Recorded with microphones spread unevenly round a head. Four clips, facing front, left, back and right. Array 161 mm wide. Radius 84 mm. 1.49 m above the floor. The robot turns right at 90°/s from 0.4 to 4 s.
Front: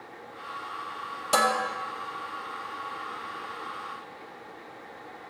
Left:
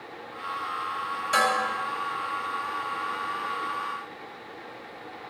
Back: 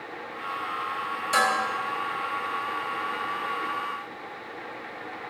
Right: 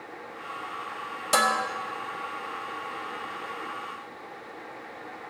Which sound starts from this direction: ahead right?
Dishes clattering, at 1.3 s.